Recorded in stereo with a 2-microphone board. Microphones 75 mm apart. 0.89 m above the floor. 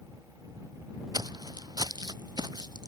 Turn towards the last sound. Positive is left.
turn(degrees=-70)  # may be behind; listen again after turning